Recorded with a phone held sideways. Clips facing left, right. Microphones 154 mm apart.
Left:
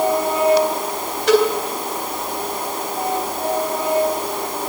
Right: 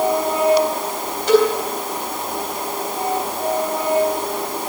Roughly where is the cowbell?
Left.